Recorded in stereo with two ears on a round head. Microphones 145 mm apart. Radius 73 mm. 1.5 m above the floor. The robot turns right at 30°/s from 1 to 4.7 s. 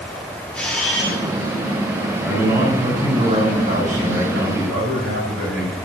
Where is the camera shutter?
5° left (ahead or behind), 2.5 m; by 1.2 s 10° left (ahead or behind), 2.5 m.